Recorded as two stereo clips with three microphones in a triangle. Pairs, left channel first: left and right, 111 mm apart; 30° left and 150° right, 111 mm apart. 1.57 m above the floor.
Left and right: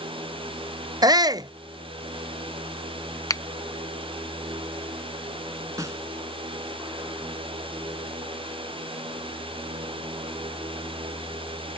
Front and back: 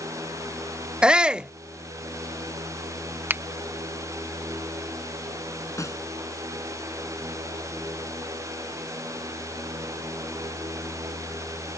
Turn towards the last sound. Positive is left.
turn(degrees=-30)